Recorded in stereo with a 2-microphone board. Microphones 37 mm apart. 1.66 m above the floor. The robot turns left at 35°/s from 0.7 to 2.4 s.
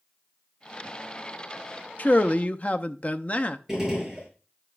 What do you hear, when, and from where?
2.0 s a man speaking: 45° left (ahead or behind), 0.6 m; by 3.6 s 40° left (ahead or behind), 0.6 m
3.7 s a gunshot: 5° right (ahead or behind), 6 m